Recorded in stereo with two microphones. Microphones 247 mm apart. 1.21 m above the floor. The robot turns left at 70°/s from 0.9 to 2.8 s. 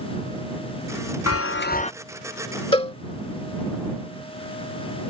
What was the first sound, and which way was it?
A chime, 70° left.